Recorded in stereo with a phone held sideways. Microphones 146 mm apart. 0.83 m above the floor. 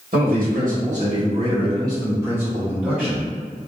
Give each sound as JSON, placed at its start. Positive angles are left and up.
{"t": 0.1, "sound": "a man speaking", "side_deg": -75, "distance_m": 1.7}